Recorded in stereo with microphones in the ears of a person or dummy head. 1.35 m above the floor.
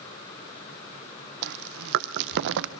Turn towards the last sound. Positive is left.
turn(degrees=-70)  # may be behind; listen again after turning